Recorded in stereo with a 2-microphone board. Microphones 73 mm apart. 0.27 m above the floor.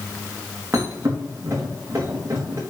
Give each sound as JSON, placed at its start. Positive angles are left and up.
{"t": 0.7, "sound": "a thud", "side_deg": -40, "distance_m": 4.5}